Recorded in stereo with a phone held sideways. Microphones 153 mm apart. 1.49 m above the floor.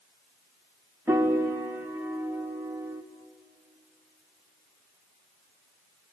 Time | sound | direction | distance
1.1 | a piano | 15° right (ahead or behind) | 2.5 m